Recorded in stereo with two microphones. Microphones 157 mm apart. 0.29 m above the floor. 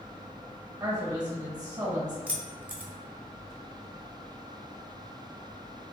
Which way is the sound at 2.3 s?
10° right (ahead or behind).